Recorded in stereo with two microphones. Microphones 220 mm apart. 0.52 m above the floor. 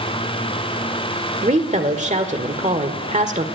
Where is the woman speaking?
35° right (ahead or behind), 1.5 m.